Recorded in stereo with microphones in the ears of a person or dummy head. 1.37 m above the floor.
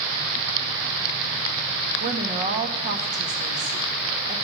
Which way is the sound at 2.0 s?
35° right (ahead or behind).